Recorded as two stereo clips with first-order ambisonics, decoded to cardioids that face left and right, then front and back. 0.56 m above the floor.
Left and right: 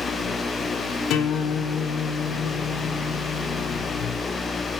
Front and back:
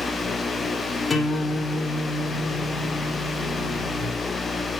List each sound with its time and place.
1.1 s a guitar: 70° left, 1.7 m